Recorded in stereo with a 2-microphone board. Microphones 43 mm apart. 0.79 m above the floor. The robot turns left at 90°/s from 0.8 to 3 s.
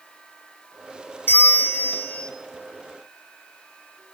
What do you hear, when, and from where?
1.3 s a bell: 110° left, 1.1 m; by 2.3 s 15° left, 1.1 m